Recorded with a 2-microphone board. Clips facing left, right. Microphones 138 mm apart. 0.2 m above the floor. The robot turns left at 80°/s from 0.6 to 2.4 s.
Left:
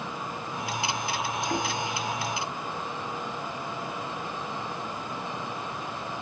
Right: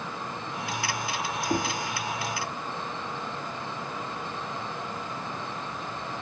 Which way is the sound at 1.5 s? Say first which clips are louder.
Right 3 dB; 20° right (ahead or behind).